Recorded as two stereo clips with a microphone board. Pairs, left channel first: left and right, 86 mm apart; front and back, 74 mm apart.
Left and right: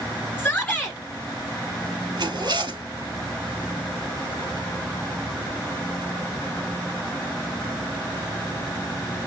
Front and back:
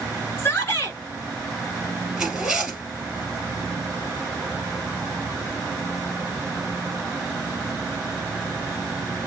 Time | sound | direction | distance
0.4 | a shout | 35° left | 1.7 m
2.2 | a zipper | 100° right | 2 m